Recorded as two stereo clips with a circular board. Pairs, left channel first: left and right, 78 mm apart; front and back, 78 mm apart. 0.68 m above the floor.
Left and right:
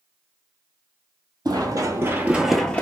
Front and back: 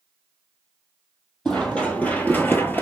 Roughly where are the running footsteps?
Right.